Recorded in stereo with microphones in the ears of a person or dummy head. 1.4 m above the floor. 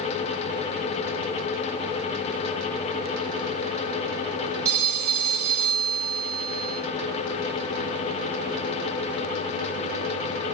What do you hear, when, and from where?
4.7 s a phone ringing: 15° right (ahead or behind), 1.5 m